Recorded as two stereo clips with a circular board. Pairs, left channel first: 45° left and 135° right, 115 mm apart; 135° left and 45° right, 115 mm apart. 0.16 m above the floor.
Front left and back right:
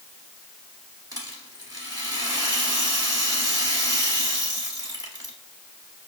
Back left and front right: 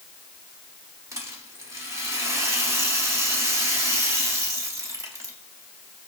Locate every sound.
1.1 s a rattle: 95° right, 1.3 m